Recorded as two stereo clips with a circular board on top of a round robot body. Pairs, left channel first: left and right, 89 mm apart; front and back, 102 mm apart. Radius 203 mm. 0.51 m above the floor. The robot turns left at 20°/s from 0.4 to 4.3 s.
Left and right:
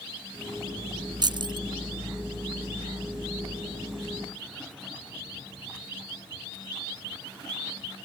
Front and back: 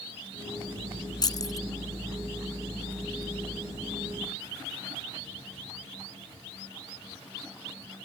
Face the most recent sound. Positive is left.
turn(degrees=-110)